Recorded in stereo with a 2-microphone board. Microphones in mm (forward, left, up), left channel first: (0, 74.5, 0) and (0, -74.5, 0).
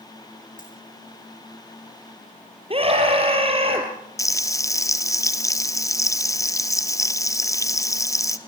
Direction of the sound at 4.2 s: 20° left (ahead or behind).